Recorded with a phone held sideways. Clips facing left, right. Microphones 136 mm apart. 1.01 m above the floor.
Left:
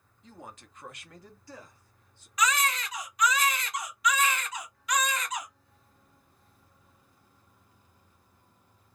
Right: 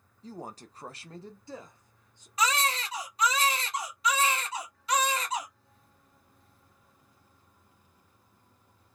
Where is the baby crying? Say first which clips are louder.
Even; 30° right (ahead or behind), 0.7 m.